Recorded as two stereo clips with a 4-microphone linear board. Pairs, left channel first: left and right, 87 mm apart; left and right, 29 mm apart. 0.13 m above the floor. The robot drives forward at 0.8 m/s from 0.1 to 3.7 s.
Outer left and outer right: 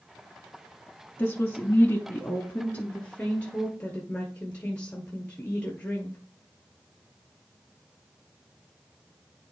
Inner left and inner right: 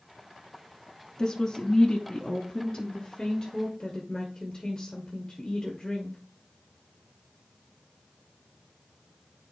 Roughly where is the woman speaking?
Left.